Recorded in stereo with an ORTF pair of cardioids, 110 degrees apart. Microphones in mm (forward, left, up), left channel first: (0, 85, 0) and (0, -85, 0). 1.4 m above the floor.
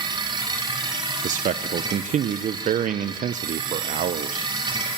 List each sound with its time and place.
0.0 s a machine running: 25° right, 4.5 m
1.2 s a man speaking: 50° right, 1.2 m